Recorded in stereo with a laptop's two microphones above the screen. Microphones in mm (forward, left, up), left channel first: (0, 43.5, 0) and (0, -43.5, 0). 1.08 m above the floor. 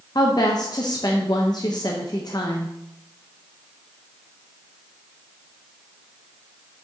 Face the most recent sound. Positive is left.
turn(degrees=50)  # may be behind; listen again after turning